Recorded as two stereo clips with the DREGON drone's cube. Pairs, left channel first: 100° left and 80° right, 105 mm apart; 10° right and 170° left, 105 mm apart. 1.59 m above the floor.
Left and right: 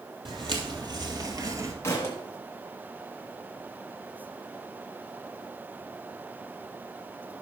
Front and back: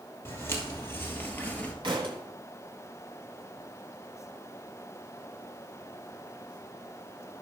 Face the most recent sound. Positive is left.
turn(degrees=160)